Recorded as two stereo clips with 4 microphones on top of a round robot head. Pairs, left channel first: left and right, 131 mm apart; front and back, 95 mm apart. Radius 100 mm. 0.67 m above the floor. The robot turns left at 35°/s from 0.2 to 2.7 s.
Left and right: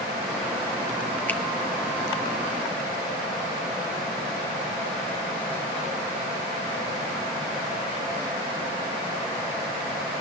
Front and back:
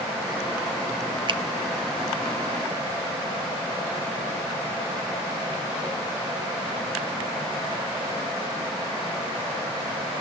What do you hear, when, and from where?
1.3 s a finger snap: 165° left, 1.4 m; by 1.4 s 160° left, 1.4 m